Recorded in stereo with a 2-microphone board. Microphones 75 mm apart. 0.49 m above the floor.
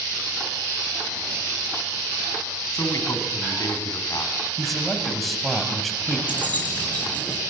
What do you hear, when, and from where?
2.7 s a man speaking: 50° left (ahead or behind), 4.5 m
4.6 s a man speaking: centre (ahead or behind), 3.5 m
6.3 s keys jangling: 20° left (ahead or behind), 5.5 m